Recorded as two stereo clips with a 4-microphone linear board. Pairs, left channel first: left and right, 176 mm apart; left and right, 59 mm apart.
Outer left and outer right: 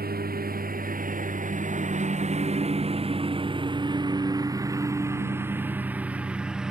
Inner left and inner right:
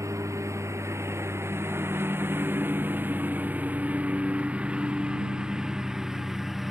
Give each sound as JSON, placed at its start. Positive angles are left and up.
{"t": 0.0, "sound": "a lawn mower", "side_deg": -60}